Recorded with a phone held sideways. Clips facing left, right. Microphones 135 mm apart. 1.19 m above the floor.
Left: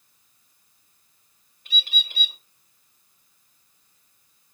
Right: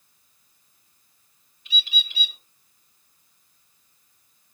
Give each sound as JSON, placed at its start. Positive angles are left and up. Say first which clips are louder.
{"t": 1.6, "sound": "a bird", "louder": "even", "side_deg": 50, "distance_m": 1.2}